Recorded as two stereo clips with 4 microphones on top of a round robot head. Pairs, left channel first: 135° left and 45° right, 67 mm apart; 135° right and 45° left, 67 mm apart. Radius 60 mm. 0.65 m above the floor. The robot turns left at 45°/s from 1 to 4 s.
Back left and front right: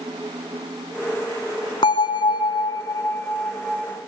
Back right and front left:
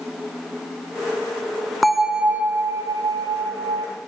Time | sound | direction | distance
1.8 | a bell | 135° left | 1.2 m